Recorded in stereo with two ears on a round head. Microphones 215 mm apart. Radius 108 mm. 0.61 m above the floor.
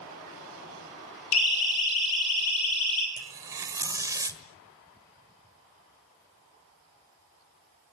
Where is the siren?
75° left (ahead or behind), 7 m.